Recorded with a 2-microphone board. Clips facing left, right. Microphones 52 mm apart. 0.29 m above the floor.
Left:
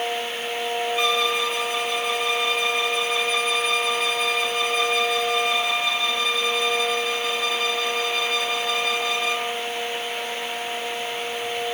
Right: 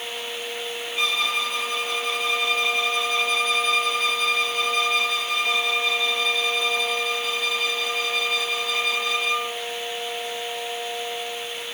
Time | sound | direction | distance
1.0 | a violin | 5° left (ahead or behind) | 1.4 m